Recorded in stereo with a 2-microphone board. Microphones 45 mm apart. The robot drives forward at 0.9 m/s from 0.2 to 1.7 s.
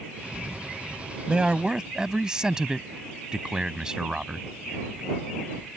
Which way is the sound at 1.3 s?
20° right (ahead or behind).